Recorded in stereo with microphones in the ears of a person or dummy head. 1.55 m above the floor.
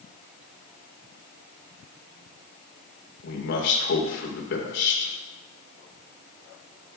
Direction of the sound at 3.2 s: 70° left (ahead or behind).